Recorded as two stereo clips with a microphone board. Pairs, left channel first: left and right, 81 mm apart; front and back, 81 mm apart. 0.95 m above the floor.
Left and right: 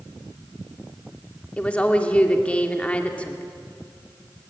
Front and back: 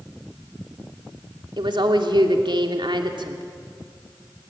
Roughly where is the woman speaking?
Behind.